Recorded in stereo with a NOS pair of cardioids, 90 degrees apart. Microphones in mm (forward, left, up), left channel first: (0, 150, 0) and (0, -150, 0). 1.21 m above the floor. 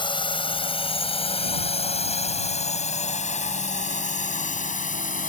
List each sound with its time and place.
0.0 s a drone: 15° left; by 5.3 s 25° left